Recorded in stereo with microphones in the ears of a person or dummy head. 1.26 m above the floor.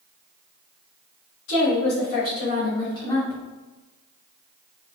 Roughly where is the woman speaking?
Left.